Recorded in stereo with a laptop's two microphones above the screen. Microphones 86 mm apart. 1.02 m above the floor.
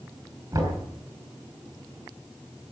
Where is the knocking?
40° right (ahead or behind), 6 m.